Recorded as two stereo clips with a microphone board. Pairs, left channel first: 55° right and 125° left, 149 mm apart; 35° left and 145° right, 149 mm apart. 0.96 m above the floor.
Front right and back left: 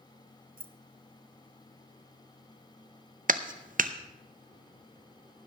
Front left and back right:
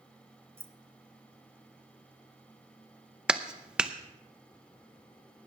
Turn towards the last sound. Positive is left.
turn(degrees=130)